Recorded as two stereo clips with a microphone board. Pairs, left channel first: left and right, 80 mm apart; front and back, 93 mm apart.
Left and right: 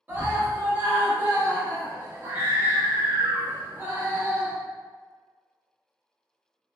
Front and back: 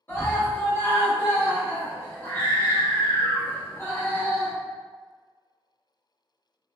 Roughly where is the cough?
I don't hear a cough.